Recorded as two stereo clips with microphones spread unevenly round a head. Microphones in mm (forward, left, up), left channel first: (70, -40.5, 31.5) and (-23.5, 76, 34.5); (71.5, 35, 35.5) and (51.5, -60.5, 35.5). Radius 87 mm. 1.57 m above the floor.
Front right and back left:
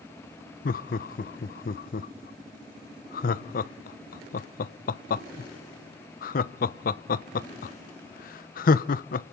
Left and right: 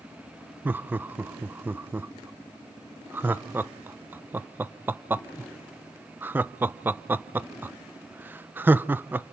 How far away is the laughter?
About 0.8 m.